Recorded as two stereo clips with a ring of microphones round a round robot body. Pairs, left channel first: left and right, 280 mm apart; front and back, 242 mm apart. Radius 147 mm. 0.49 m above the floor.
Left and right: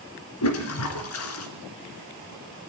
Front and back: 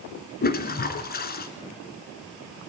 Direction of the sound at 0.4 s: 50° left.